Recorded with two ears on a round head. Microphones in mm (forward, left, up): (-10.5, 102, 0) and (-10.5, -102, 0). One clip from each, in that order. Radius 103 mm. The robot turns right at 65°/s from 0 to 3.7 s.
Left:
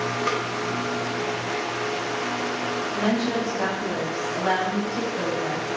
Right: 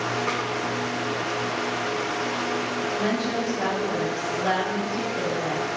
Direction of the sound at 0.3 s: 75° left (ahead or behind).